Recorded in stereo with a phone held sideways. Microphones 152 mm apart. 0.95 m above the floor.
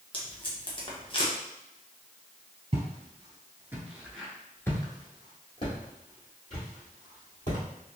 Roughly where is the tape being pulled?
Left.